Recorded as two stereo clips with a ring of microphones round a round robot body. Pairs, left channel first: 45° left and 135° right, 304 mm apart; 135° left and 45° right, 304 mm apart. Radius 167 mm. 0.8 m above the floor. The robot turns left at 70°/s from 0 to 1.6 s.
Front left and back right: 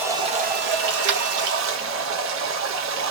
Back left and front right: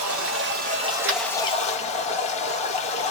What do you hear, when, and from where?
0.0 s running water: 50° right, 0.9 m; by 3.1 s 165° right, 0.9 m
1.1 s tapping: 90° right, 0.9 m; by 1.2 s 100° right, 0.9 m